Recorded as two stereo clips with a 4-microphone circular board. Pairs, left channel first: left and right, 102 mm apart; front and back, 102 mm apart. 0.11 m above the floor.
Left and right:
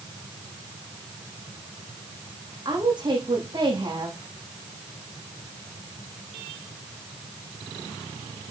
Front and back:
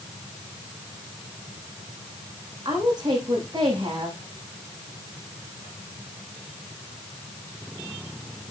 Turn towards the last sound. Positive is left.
turn(degrees=-130)